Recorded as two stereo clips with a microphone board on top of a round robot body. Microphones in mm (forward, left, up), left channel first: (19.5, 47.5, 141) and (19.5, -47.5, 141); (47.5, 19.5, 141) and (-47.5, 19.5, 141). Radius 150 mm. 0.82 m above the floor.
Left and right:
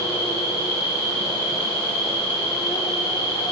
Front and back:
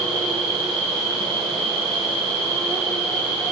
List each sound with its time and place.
0.0 s an insect: 80° left, 5 m